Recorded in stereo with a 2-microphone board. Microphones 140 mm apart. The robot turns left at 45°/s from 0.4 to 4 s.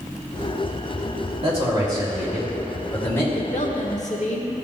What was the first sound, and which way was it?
A man speaking, 125° right.